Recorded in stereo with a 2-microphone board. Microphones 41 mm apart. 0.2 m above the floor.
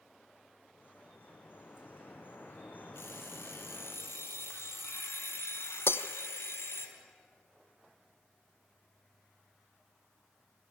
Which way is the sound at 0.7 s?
50° left (ahead or behind).